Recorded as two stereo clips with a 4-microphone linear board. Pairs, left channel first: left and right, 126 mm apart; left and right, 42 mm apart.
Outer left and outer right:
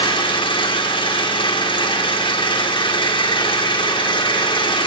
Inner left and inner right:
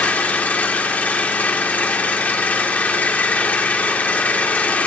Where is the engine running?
40° left (ahead or behind), 1.7 m.